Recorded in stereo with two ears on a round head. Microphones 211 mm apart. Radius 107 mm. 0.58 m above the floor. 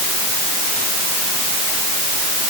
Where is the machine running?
No machine running in this recording.